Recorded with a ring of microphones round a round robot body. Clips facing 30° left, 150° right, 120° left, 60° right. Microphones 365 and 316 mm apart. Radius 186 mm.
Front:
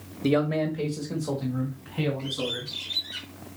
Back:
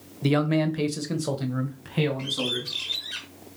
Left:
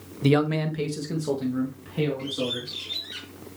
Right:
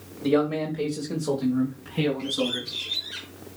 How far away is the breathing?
I don't hear breathing.